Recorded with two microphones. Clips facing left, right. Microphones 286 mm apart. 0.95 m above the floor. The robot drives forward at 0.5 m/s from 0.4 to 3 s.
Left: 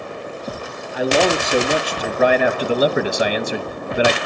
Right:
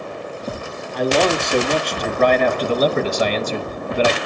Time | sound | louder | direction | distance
0.9 | a man speaking | even | 5° left (ahead or behind) | 1.8 m